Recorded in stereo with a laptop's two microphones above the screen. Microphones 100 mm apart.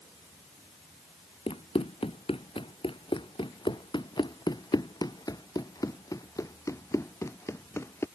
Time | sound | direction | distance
1.5 | running footsteps | 75° left (ahead or behind) | ?